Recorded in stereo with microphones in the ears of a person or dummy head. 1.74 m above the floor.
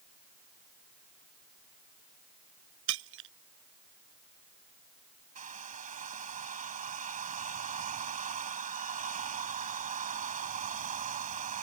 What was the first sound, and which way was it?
Breaking glass, 70° right (ahead or behind).